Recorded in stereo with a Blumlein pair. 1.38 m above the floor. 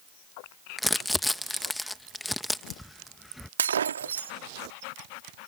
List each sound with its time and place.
0.8 s crumpling: 5° left
3.6 s breaking glass: 65° right